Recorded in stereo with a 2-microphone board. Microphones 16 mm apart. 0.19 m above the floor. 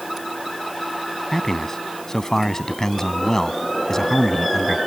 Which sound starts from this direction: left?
A man speaking, at 1.3 s.